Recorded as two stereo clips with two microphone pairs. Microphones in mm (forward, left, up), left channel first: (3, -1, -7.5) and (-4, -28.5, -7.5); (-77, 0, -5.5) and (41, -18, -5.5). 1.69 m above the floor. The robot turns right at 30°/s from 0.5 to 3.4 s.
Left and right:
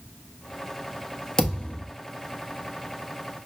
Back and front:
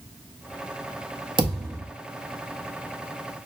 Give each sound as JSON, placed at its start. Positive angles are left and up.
{"t": 1.4, "sound": "a thud", "azimuth_deg": 20, "distance_m": 1.3}